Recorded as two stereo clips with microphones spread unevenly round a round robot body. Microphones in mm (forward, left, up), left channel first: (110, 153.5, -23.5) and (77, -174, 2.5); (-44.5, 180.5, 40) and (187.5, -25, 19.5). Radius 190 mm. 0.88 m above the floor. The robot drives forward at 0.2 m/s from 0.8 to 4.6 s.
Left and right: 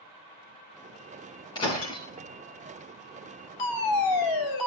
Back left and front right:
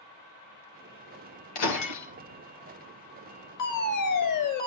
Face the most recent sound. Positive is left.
turn(degrees=120)